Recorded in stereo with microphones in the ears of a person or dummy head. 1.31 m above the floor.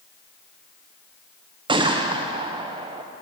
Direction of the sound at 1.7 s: 20° right (ahead or behind).